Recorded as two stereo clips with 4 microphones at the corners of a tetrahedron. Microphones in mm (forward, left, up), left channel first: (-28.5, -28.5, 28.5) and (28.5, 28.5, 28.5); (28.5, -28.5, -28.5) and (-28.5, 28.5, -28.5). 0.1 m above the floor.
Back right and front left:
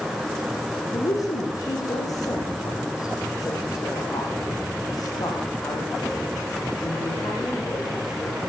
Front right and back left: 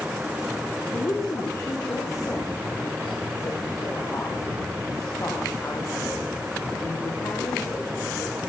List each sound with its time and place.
0.9 s a woman speaking: 95° right, 6.5 m